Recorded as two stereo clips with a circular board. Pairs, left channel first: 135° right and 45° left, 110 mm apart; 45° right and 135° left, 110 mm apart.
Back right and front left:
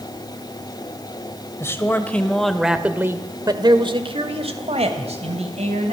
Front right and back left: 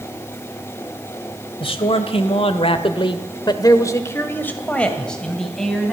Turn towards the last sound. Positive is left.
turn(degrees=45)